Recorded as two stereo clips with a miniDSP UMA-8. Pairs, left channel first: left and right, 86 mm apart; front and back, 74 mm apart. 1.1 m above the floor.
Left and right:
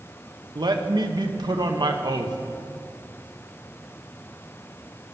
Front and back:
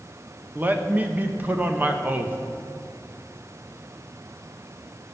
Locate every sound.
0.6 s a man speaking: 120° right, 1.1 m